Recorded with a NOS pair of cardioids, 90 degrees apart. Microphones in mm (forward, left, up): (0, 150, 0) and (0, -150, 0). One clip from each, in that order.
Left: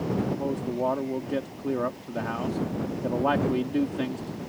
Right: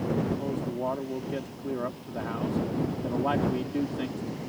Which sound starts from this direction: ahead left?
A man speaking, at 0.4 s.